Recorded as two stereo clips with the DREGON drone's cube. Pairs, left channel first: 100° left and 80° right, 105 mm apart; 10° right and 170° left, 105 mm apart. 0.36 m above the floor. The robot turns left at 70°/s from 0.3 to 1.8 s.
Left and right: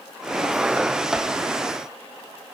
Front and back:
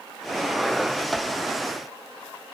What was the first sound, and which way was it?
Only background noise.